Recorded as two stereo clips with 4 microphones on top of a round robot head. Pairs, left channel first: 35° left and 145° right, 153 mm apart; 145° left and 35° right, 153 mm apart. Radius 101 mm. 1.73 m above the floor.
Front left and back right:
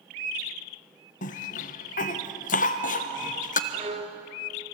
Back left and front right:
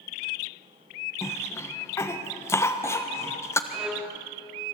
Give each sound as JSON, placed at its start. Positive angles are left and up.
{"t": 1.2, "sound": "a cough", "azimuth_deg": 75, "distance_m": 1.4}
{"t": 3.7, "sound": "a violin", "azimuth_deg": -120, "distance_m": 1.4}